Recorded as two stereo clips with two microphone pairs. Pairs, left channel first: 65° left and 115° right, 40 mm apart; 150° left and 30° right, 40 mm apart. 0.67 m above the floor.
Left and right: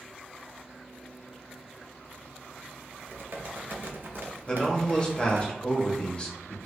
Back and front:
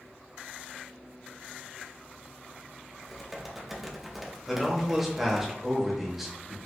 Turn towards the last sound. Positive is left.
turn(degrees=50)